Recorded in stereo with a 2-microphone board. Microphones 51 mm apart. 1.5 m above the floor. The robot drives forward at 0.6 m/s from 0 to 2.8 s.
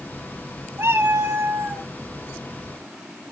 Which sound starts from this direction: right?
A cat meowing, at 0.8 s.